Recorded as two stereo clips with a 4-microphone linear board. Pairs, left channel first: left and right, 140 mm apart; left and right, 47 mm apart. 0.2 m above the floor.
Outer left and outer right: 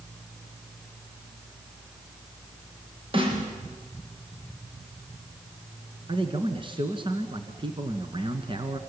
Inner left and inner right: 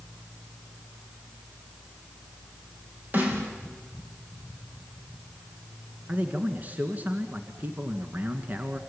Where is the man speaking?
35° right (ahead or behind), 1.8 m.